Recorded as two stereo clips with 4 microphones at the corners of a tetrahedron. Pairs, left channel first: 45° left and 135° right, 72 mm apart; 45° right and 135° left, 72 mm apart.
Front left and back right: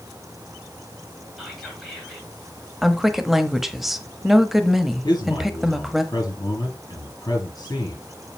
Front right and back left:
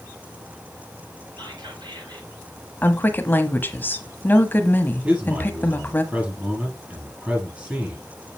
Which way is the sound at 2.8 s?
50° right.